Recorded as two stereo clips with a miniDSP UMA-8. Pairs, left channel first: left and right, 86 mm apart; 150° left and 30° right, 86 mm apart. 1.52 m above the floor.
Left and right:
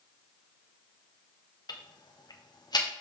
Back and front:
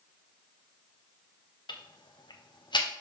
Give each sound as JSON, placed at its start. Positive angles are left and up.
{"t": 1.7, "sound": "ticking", "azimuth_deg": 125, "distance_m": 1.1}